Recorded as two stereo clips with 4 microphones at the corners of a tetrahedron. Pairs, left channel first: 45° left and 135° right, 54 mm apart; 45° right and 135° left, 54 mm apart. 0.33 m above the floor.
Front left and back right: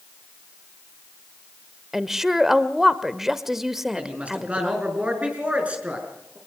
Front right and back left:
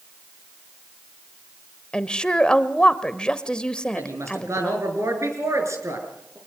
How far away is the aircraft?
I don't hear an aircraft.